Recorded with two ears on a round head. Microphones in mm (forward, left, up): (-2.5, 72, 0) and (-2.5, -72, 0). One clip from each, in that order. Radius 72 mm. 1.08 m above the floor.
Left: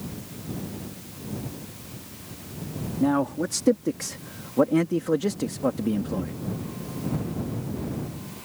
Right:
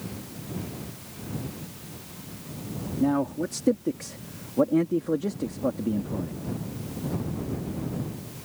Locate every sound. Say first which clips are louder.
3.0 s a man speaking: left 2 dB; 20° left (ahead or behind); by 6.4 s 75° left (ahead or behind)